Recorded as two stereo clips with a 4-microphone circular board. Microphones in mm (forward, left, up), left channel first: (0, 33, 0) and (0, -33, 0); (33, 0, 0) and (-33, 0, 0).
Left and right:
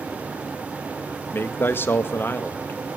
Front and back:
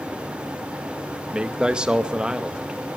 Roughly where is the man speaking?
Left.